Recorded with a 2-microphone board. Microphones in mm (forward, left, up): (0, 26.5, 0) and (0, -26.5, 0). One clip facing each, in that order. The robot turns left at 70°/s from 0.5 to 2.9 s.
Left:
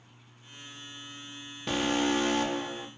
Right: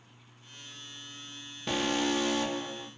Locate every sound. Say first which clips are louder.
1.7 s an alarm: left 2 dB; 175° left, 0.8 m; by 2.9 s 90° left, 0.8 m